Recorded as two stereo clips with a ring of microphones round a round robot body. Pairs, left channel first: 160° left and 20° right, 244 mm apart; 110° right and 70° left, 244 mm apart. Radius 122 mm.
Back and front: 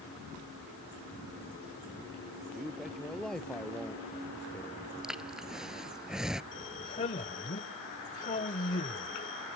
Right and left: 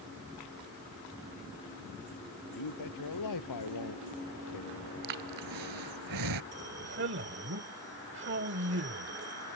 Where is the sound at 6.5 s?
100° left.